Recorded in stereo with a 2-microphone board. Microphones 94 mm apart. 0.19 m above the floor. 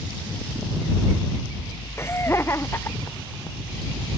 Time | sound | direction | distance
2.0 | laughter | 25° left (ahead or behind) | ?